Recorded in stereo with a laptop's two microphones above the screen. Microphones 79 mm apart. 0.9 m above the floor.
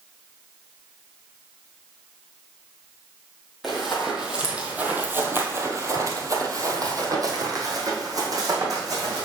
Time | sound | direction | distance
3.6 | running footsteps | centre (ahead or behind) | 1.5 m